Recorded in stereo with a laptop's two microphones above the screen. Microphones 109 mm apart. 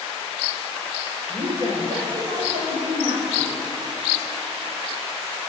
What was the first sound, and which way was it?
A woman speaking, 70° right (ahead or behind).